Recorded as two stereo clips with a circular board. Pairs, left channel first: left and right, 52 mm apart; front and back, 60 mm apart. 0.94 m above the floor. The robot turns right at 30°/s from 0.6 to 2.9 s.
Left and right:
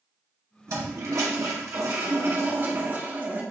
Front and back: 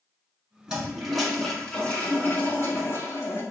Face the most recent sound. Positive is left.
turn(degrees=-35)